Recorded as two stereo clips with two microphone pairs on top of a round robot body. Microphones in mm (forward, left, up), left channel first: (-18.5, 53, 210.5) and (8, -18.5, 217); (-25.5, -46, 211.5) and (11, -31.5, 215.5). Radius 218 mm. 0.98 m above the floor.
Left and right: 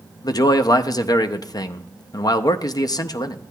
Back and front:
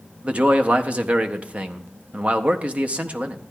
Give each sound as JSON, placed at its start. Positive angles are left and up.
{"t": 0.2, "sound": "a man speaking", "azimuth_deg": 80, "distance_m": 0.6}